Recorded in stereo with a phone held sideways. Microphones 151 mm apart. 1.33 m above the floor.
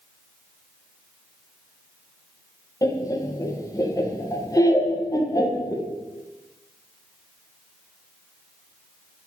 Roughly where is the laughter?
Left.